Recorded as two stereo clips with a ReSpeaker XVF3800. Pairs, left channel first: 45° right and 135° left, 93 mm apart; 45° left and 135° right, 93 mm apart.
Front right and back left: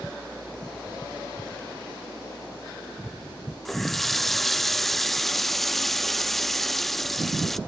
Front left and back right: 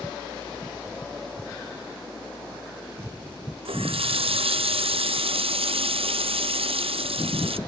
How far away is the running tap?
About 0.5 m.